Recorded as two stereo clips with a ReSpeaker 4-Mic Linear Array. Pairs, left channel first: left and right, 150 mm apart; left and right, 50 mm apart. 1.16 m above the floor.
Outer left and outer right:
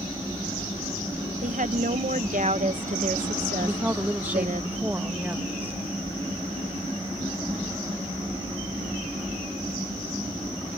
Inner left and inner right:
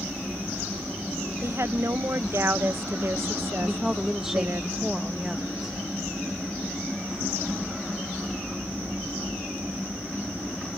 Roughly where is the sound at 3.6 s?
Centre.